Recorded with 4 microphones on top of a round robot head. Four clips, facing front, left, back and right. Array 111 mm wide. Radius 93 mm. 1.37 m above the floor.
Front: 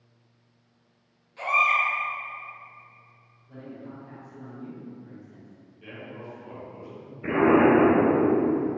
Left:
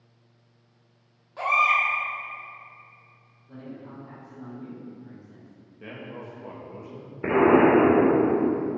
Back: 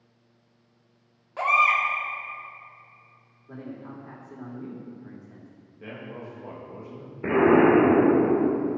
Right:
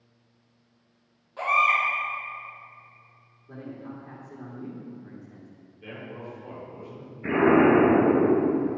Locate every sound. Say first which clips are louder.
1.4 s a baby crying: even, back 2 dB; 175° left, 2.5 m
3.5 s a man speaking: right 2 dB, back 2 dB; 150° right, 3 m
5.8 s a man speaking: even, back 2 dB; 135° left, 2.5 m
7.2 s an explosion: left 1 dB, back 1 dB; 120° left, 3 m